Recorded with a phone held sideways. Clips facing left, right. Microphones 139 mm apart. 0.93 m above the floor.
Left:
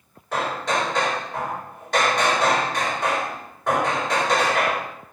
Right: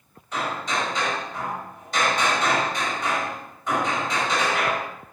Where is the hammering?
70° left (ahead or behind), 4.5 m.